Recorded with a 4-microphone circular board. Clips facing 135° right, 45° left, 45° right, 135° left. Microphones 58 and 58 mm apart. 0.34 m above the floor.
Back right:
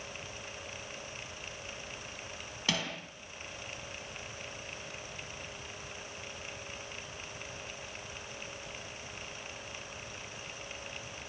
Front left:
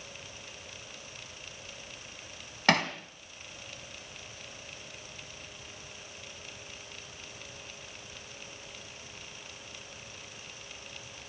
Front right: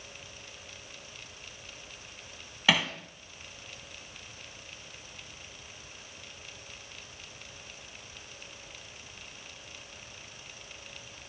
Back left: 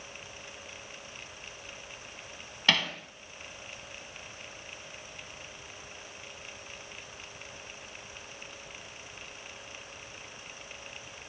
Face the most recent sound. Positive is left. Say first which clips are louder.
# front left 9 dB, front right 1 dB
turn(degrees=35)